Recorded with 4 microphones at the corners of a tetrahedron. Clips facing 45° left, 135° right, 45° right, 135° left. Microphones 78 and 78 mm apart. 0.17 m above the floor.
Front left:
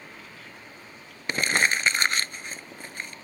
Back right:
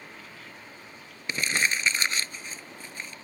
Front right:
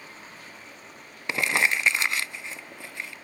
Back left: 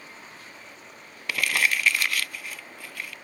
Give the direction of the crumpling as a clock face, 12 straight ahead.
11 o'clock.